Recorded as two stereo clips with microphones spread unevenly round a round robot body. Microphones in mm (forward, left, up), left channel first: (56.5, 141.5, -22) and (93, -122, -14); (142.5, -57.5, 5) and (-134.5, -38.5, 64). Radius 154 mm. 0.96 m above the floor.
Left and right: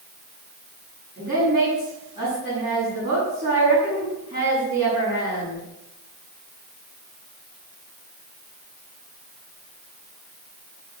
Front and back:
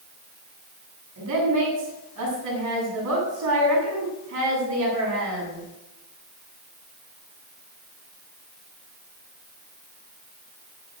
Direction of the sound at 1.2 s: 145° right.